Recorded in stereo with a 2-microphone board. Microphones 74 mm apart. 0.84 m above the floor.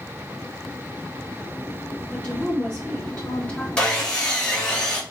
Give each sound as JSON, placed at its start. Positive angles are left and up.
{"t": 2.1, "sound": "a woman speaking", "side_deg": 10, "distance_m": 2.0}
{"t": 3.8, "sound": "sawing", "side_deg": 10, "distance_m": 0.9}